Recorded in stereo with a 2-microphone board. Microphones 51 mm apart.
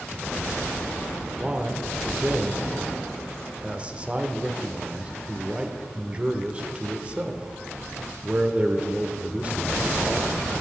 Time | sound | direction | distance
1.4 | a man speaking | 25° right (ahead or behind) | 0.9 m